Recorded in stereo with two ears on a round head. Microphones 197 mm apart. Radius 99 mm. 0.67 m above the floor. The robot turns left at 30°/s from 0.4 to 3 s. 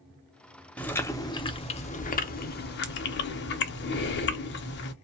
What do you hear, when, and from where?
0.8 s chewing: 175° left, 0.6 m; by 4.9 s 105° left, 0.6 m